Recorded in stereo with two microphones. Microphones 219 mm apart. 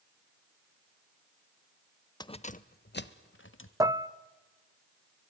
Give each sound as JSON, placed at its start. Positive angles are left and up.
{"t": 2.2, "sound": "keys jangling", "side_deg": 20, "distance_m": 0.5}
{"t": 3.8, "sound": "dishes clattering", "side_deg": -15, "distance_m": 0.5}